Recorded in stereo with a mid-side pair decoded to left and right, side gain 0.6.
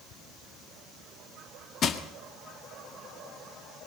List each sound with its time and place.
1.8 s crushing: 45° left, 1.7 m